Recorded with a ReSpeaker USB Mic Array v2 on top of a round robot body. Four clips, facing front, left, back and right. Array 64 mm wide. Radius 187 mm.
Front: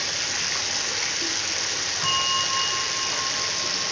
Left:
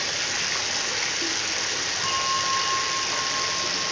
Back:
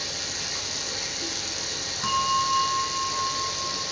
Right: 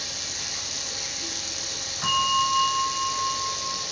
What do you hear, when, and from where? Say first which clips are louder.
0.0 s running water: left 9 dB, front 5 dB; 55° left, 0.8 m
2.0 s a bell: right 4 dB, back 3 dB; 10° right, 3.5 m